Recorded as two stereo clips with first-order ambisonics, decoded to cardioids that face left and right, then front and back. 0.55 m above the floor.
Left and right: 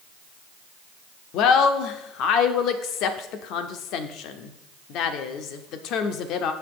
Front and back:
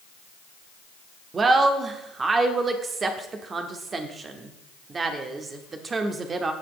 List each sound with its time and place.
1.3 s a woman speaking: 115° left, 0.9 m